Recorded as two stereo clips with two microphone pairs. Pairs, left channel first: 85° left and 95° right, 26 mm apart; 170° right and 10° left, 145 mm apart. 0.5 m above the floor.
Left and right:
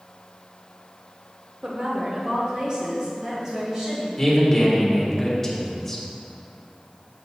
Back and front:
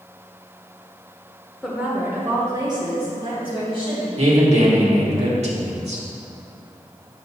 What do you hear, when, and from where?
1.6 s a woman speaking: 80° right, 1.0 m; by 4.1 s 35° right, 3.5 m
4.2 s a man speaking: 10° left, 1.3 m